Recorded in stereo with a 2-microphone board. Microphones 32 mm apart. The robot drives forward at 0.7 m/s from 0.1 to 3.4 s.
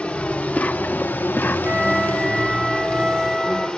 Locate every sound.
0.0 s an insect: 40° left (ahead or behind), 1.1 m; by 3.8 s 25° left (ahead or behind), 1.6 m
1.6 s a flute: 30° right (ahead or behind), 0.8 m; by 3.7 s 15° right (ahead or behind), 2.0 m